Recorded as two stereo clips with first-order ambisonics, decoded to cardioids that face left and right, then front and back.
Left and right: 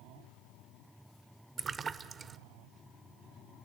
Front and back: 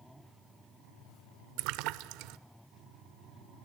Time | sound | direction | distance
1.6 | a splash | 160° right | 0.5 m